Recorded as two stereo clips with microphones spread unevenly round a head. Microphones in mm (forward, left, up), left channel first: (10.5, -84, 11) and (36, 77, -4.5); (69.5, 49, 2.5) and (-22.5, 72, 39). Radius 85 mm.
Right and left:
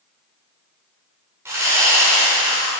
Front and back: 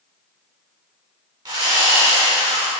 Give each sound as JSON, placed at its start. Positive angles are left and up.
{"t": 1.4, "sound": "sawing", "azimuth_deg": 160, "distance_m": 1.8}